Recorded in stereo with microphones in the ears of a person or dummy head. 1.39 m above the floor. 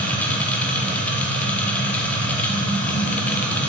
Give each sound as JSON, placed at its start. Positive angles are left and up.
{"t": 0.0, "sound": "a machine running", "side_deg": 5, "distance_m": 0.8}